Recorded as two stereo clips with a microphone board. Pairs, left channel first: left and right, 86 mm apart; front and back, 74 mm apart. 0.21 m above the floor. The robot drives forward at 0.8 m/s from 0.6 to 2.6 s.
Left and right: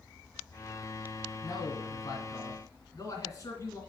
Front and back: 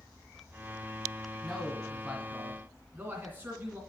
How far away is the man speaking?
About 1.8 m.